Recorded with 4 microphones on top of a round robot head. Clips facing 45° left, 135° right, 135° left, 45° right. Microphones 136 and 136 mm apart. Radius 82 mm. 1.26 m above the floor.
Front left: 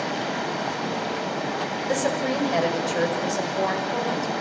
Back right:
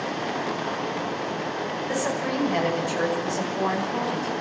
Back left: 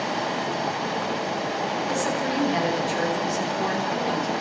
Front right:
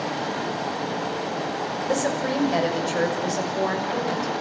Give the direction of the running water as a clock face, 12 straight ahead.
10 o'clock.